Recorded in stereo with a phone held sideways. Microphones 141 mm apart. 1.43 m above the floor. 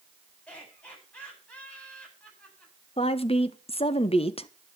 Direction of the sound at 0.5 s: 10° left (ahead or behind).